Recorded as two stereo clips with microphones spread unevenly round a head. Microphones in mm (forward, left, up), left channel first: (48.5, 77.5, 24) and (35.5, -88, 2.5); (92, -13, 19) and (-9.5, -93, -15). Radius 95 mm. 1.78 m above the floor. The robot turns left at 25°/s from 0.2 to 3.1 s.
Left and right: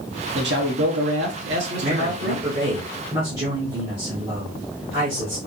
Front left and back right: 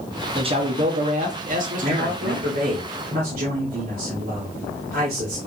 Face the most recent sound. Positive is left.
turn(degrees=-165)